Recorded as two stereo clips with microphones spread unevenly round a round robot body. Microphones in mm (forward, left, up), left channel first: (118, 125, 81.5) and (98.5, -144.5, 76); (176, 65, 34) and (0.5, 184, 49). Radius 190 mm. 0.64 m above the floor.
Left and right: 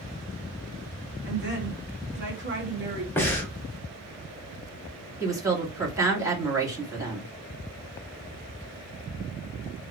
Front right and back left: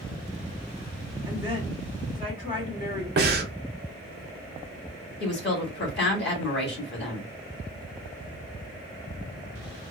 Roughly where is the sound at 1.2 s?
Ahead right.